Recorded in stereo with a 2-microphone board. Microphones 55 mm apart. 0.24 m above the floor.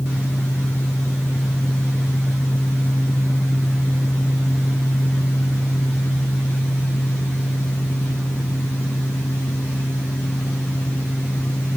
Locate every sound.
Only background noise.